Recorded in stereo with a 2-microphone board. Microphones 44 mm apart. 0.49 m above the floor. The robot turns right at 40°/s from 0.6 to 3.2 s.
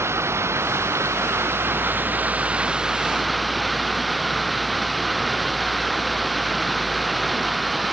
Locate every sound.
0.0 s running water: 105° right; by 7.9 s straight ahead